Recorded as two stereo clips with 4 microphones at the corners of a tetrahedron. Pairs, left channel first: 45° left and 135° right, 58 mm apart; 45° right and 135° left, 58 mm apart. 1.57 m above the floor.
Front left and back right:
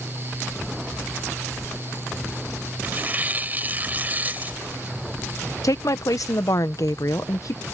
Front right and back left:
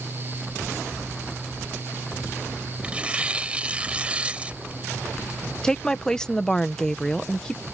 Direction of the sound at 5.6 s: 35° left.